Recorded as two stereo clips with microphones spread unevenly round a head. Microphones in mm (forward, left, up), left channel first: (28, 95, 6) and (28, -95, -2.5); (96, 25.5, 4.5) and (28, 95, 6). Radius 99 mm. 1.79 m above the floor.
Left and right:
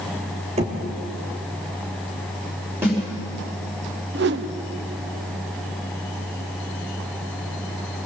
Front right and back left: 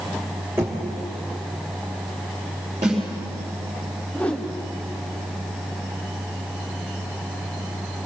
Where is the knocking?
150° right, 2.5 m.